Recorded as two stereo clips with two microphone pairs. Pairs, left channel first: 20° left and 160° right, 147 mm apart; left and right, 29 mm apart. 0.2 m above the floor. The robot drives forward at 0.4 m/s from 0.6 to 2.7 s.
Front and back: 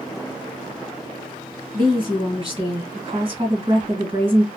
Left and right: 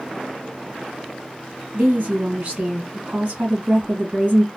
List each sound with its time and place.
1.7 s a woman speaking: 110° right, 2.0 m; by 4.5 s 125° right, 2 m